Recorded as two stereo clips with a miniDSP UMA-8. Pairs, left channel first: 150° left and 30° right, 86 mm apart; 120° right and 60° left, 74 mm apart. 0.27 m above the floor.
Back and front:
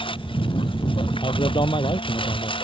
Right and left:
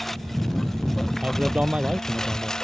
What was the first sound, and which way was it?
A lawn mower, 155° left.